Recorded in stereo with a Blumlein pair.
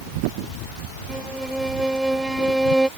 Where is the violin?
5° right.